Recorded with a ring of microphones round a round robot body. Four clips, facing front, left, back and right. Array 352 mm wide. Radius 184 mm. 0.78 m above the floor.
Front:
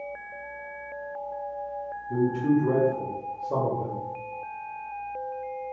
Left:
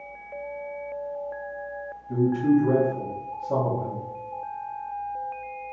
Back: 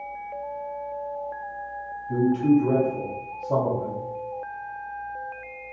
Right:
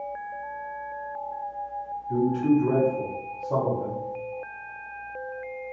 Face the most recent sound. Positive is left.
turn(degrees=145)